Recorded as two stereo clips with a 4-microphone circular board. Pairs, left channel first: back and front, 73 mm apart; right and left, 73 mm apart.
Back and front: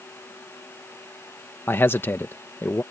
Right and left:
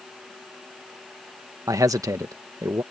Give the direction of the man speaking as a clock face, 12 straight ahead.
8 o'clock.